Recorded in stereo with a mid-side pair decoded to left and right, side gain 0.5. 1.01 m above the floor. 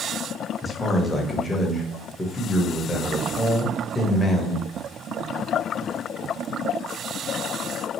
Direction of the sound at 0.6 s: 15° left.